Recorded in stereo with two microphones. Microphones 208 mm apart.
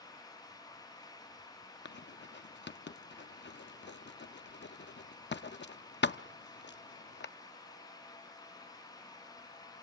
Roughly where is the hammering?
No hammering in this recording.